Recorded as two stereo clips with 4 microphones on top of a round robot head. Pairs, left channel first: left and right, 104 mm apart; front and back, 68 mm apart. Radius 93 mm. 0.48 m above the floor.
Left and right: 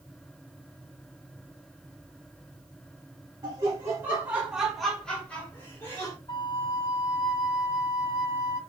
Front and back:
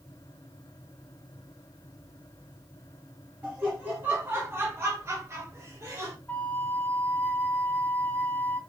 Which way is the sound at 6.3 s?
60° left.